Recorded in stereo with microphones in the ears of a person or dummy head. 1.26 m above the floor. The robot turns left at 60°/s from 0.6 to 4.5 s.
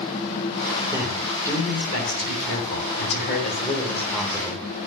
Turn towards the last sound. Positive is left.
turn(degrees=-20)